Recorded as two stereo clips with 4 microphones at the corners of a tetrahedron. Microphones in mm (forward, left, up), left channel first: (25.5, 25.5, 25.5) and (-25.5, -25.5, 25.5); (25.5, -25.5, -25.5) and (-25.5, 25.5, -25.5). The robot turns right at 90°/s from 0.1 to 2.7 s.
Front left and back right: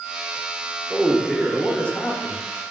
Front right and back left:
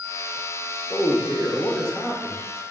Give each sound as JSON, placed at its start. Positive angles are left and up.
{"t": 0.9, "sound": "a man speaking", "azimuth_deg": -75, "distance_m": 0.7}